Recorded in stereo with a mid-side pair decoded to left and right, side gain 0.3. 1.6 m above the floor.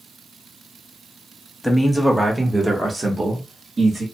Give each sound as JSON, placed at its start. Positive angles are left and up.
{"t": 1.6, "sound": "a man speaking", "azimuth_deg": 10, "distance_m": 1.1}